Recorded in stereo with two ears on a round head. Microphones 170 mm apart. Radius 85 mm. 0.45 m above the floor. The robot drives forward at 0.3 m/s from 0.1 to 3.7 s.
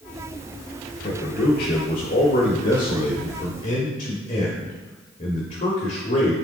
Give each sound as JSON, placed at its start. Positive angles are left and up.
{"t": 1.0, "sound": "a man speaking", "side_deg": 50, "distance_m": 1.2}